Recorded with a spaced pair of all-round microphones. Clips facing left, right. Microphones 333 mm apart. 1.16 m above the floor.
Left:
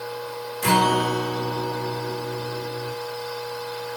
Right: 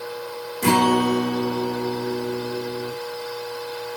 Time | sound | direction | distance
0.6 | a guitar | 60° right (ahead or behind) | 3 m